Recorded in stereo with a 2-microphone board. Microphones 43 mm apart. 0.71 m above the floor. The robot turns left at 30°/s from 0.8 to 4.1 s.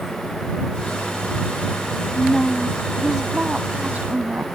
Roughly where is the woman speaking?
Ahead.